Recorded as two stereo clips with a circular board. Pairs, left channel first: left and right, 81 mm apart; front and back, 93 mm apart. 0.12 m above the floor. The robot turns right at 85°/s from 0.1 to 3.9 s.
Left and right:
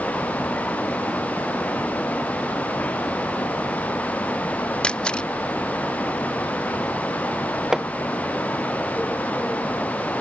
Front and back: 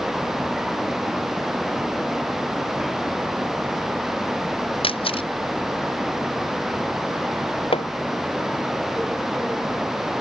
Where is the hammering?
5° right.